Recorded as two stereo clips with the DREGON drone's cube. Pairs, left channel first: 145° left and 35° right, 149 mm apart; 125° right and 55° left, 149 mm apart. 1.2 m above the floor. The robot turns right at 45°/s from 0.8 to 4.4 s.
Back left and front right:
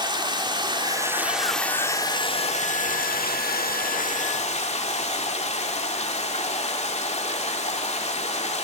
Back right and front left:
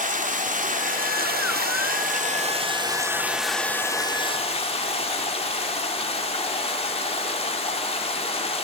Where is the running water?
25° left, 2.5 m; by 8.6 s 170° right, 2.5 m.